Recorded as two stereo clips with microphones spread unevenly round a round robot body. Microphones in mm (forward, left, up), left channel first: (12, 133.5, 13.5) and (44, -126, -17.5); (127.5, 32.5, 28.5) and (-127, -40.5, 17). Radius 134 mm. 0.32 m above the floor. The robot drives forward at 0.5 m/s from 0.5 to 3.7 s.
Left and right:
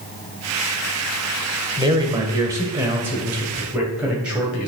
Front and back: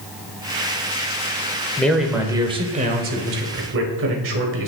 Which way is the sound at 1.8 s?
65° right.